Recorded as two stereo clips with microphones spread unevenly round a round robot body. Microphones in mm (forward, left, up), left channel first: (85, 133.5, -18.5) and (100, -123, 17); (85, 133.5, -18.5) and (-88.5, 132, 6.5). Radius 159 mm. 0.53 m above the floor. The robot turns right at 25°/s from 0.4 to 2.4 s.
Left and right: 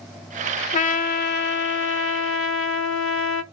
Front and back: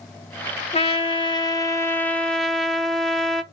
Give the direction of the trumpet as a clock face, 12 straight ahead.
11 o'clock.